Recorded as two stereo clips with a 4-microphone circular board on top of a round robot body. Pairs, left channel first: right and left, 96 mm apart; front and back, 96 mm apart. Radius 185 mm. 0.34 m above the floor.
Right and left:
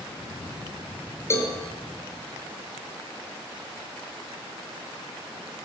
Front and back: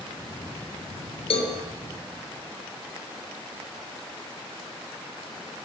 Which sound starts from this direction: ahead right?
A cowbell, at 1.3 s.